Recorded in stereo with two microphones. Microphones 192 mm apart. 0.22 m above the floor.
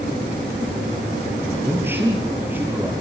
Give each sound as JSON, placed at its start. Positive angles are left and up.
{"t": 1.6, "sound": "a man speaking", "side_deg": -10, "distance_m": 5.0}